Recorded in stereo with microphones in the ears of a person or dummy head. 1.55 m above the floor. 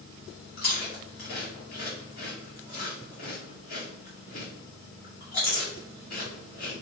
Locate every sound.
0.6 s chewing: 50° left (ahead or behind), 2.0 m